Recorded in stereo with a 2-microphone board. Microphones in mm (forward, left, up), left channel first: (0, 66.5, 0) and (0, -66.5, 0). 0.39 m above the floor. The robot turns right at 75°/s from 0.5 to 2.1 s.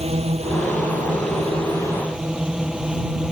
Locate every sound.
0.0 s a drone: 125° right; by 3.3 s 5° right